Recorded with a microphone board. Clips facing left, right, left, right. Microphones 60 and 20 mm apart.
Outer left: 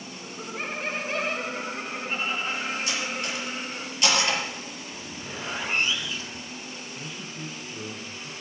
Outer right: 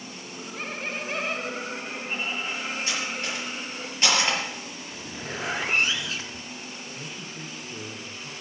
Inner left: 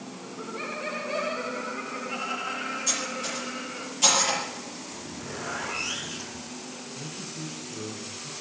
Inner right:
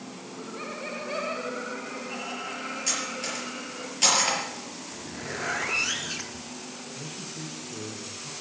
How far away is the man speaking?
About 1.9 m.